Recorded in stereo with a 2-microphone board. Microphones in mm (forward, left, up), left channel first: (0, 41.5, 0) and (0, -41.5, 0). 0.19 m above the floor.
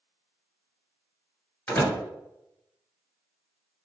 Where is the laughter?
I don't hear laughter.